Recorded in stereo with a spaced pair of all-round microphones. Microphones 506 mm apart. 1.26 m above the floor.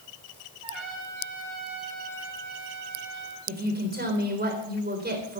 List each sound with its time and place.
0.6 s a trumpet: 75° right (ahead or behind), 4.5 m
3.5 s a woman speaking: 20° right (ahead or behind), 4 m